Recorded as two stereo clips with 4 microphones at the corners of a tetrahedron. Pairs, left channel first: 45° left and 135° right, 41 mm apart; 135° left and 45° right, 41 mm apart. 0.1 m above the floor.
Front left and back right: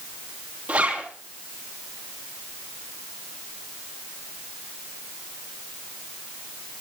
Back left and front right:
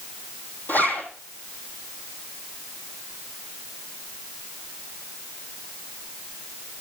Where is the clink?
I don't hear a clink.